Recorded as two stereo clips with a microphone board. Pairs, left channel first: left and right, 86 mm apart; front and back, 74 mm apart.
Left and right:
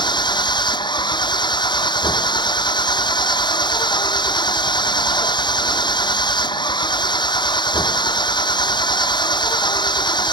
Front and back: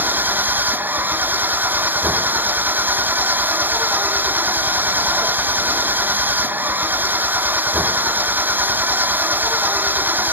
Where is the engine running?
115° left.